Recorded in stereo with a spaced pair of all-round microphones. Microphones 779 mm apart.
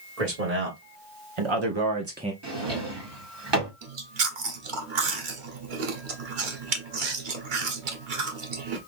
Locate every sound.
0.2 s a man speaking: 50° right (ahead or behind), 1.9 m; by 2.3 s 5° right (ahead or behind), 0.5 m
2.4 s a drawer: 30° right (ahead or behind), 1.8 m
3.8 s chewing: 85° right, 1.3 m